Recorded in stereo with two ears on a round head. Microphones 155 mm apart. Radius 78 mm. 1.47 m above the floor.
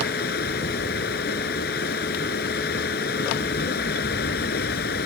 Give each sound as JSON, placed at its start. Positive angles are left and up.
{"t": 0.0, "sound": "running water", "side_deg": 60}